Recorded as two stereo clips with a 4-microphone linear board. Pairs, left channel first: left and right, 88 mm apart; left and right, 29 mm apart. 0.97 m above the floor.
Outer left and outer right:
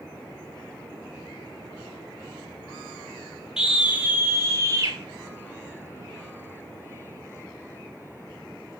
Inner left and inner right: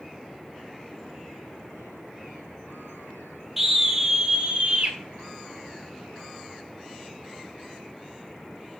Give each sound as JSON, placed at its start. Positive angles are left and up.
{"t": 3.6, "sound": "a scream", "side_deg": -10, "distance_m": 2.5}